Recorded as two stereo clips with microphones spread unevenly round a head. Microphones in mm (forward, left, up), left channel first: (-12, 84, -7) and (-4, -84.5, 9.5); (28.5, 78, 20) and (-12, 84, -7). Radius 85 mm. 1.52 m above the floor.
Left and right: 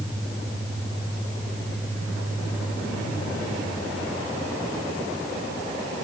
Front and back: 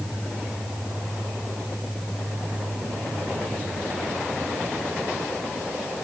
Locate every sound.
Only background noise.